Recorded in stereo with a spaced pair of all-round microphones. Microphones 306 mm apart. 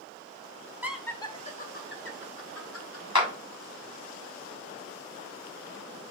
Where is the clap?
80° left, 0.9 m.